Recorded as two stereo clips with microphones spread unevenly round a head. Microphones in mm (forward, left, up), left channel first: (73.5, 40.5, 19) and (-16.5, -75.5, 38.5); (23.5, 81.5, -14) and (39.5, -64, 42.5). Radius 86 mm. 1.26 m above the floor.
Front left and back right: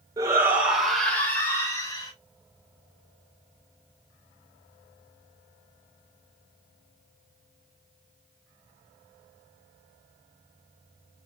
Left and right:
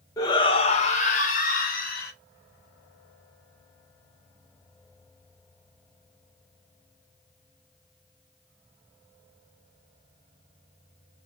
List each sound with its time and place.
0.2 s a shout: 160° left, 1.3 m; by 2.1 s 120° left, 2 m